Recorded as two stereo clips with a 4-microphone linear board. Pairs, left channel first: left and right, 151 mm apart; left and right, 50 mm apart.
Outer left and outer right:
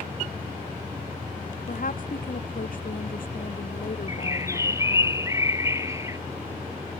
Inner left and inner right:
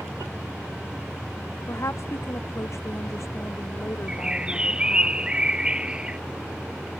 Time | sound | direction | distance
1.7 | a woman speaking | 65° left (ahead or behind) | ?
4.1 | a bird | 20° right (ahead or behind) | ?